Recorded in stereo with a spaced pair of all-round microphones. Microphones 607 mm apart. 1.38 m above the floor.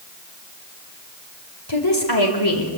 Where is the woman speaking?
40° left (ahead or behind), 4.5 m.